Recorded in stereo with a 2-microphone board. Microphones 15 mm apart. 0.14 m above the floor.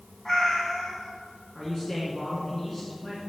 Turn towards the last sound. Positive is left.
turn(degrees=25)  # may be behind; listen again after turning